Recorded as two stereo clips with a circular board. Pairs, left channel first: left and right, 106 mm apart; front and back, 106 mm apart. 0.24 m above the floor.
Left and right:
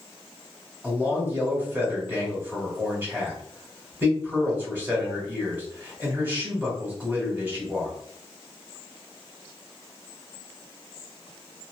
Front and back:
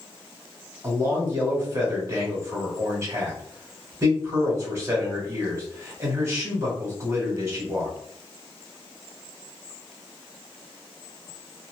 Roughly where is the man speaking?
Behind right.